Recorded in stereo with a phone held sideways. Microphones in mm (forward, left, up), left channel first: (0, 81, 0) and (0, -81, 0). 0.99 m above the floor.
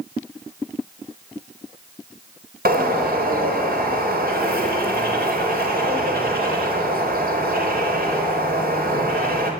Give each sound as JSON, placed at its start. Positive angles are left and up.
{"t": 2.6, "sound": "a bird", "side_deg": -65, "distance_m": 3.5}